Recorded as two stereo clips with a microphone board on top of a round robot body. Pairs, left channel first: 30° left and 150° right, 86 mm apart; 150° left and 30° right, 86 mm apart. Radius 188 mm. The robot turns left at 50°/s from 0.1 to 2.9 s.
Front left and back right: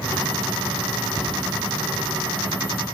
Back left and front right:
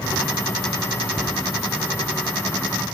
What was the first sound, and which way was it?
A cupboard door, 100° right.